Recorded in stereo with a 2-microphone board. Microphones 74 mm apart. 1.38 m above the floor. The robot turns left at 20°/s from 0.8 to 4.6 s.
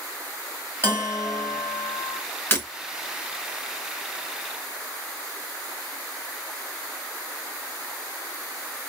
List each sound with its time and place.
0.8 s a bell: 35° left (ahead or behind), 2.5 m; by 2.2 s 60° left (ahead or behind), 2.5 m
2.5 s breaking glass: 30° left (ahead or behind), 2 m